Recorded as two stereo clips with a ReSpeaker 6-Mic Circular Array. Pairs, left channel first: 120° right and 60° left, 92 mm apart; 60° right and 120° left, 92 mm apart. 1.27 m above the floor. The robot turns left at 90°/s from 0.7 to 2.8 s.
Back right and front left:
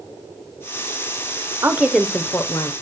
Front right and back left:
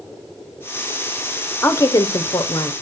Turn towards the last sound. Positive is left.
turn(degrees=-105)